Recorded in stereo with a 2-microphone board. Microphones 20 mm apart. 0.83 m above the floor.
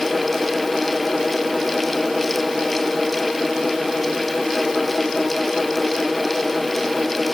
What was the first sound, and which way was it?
Only background noise.